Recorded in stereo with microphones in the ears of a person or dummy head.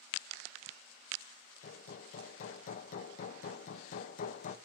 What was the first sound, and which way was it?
Hammering, 50° left (ahead or behind).